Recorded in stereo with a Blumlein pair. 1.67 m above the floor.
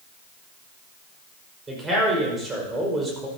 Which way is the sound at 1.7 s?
15° right.